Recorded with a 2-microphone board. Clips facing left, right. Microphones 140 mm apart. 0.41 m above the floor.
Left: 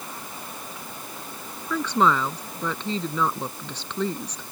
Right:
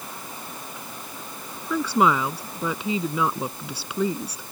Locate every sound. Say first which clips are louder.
1.7 s a woman speaking: right 1 dB; 10° right (ahead or behind)